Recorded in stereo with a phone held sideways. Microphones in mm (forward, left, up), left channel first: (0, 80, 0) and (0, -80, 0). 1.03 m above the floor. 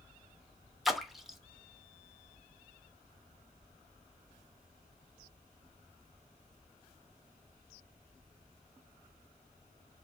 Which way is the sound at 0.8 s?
Centre (ahead or behind).